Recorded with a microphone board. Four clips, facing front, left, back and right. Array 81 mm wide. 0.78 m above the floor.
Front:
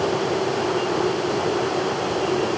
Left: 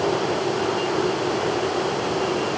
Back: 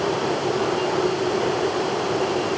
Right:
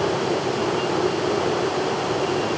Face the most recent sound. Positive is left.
No sound to turn to.